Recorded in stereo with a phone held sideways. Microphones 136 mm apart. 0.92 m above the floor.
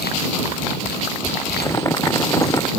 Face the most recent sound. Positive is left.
turn(degrees=25)  # may be behind; listen again after turning